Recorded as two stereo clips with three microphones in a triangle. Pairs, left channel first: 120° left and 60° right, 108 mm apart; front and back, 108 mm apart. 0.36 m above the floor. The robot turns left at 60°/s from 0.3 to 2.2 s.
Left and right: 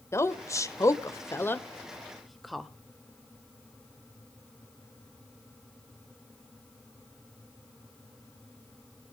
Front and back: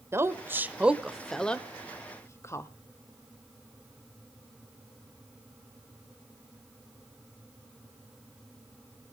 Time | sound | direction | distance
0.1 | a woman speaking | 145° left | 1.1 m